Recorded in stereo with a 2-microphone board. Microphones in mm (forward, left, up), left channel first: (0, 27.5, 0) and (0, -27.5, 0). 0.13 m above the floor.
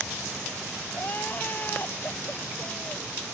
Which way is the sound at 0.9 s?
40° left (ahead or behind).